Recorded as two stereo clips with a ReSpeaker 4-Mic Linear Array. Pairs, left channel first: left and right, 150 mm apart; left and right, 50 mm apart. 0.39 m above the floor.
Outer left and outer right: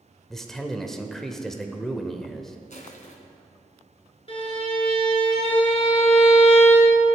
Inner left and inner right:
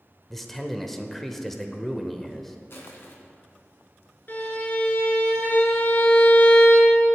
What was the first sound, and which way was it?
A man speaking, 5° left (ahead or behind).